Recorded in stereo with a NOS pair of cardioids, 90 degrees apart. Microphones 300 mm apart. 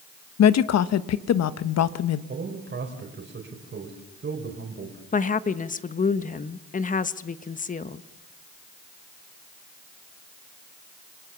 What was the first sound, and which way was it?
A woman speaking, 60° left.